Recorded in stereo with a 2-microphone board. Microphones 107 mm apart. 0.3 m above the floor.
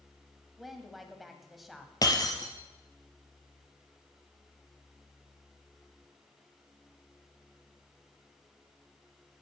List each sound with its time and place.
0.6 s a woman speaking: centre (ahead or behind), 1.5 m
2.0 s breaking glass: 35° left (ahead or behind), 1.9 m